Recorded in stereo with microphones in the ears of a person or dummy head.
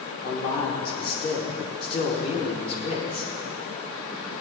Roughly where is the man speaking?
Left.